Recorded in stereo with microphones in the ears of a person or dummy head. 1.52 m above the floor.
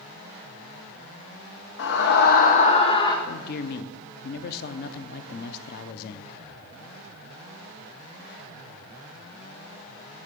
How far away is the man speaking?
About 0.6 m.